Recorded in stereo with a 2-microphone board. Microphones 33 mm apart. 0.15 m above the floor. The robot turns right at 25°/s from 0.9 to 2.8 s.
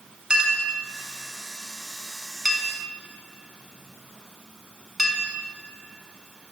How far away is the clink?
About 0.9 m.